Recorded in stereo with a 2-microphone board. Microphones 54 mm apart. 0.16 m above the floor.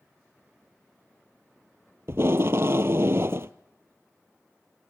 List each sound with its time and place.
2.1 s tape being pulled: 55° right (ahead or behind), 0.6 m